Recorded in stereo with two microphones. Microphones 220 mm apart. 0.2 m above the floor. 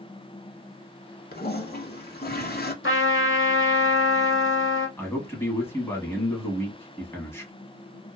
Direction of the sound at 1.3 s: 45° left (ahead or behind).